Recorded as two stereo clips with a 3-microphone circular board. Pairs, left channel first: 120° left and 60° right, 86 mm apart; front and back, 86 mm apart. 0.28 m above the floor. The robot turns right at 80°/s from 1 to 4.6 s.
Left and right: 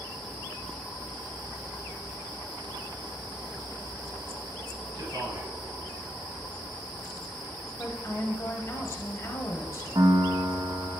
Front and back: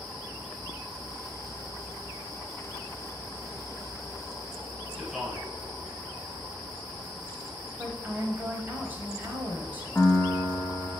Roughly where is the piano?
Ahead right.